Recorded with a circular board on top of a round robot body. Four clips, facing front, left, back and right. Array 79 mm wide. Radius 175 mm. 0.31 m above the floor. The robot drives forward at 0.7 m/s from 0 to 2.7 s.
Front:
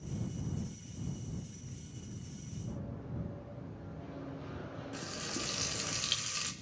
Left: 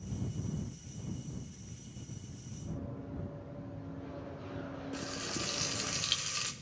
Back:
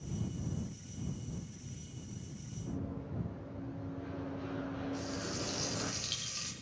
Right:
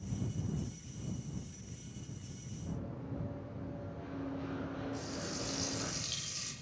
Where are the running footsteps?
125° right, 6.5 m; by 5.9 s 155° right, 2.5 m.